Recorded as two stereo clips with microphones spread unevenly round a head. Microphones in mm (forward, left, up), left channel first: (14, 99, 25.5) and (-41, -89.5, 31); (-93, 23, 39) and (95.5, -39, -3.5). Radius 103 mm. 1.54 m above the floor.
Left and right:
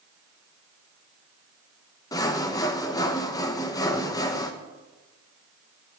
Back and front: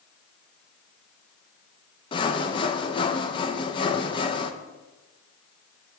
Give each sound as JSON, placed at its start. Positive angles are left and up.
{"t": 2.1, "sound": "sawing", "azimuth_deg": 140, "distance_m": 0.8}